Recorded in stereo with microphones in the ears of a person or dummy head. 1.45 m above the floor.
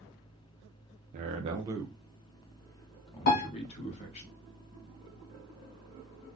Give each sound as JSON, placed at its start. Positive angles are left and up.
{"t": 1.1, "sound": "a man speaking", "side_deg": -45, "distance_m": 0.9}
{"t": 3.3, "sound": "a piano", "side_deg": 50, "distance_m": 1.5}